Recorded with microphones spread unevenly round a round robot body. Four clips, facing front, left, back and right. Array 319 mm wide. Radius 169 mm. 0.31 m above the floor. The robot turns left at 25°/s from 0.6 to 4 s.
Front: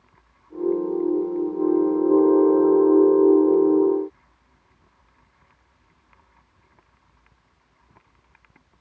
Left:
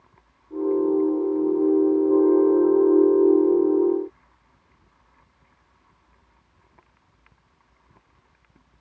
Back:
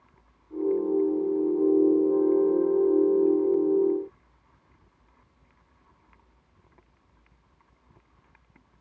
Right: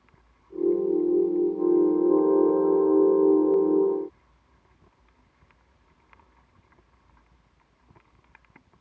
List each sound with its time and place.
Only background noise.